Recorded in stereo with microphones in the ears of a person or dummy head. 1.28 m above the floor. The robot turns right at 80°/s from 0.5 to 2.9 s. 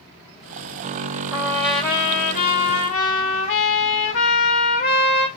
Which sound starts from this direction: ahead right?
A trumpet, at 1.3 s.